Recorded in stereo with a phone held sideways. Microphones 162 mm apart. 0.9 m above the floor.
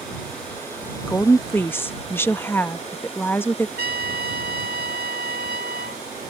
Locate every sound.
1.1 s a woman speaking: 15° left (ahead or behind)
3.8 s a trumpet: 85° right